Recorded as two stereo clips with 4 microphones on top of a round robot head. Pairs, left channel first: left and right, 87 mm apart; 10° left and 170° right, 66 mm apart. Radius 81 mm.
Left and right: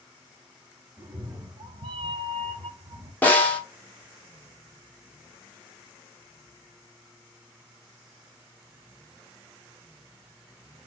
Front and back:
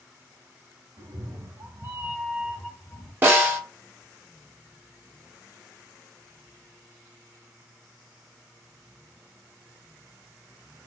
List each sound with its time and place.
1.0 s a cat meowing: 150° right, 0.8 m; by 3.1 s 50° right, 0.8 m
3.2 s a snare drum: 150° left, 1.3 m